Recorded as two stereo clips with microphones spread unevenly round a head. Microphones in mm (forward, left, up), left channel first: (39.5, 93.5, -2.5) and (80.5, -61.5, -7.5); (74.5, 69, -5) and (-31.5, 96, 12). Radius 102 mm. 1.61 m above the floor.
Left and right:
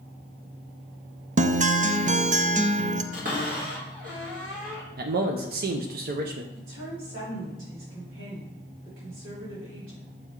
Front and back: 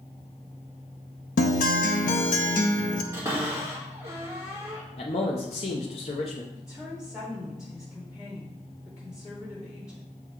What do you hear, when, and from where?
1.4 s a guitar: 30° right, 0.5 m
3.1 s a cupboard door: 125° right, 1.6 m
5.0 s a man speaking: 65° right, 0.6 m
6.5 s a woman speaking: 90° right, 3.5 m